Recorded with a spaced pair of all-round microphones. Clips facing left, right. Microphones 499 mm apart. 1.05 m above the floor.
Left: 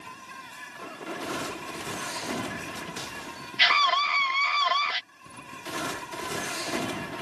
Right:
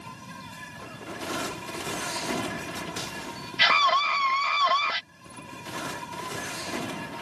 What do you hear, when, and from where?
0.0 s an insect: 60° right (ahead or behind)
3.6 s a scream: 70° right (ahead or behind)